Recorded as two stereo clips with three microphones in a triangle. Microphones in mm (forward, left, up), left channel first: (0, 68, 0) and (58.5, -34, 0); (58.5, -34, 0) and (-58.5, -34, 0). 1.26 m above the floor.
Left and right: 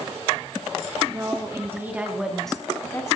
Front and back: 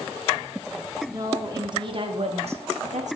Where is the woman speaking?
120° right, 3 m; by 3.2 s 175° right, 2 m.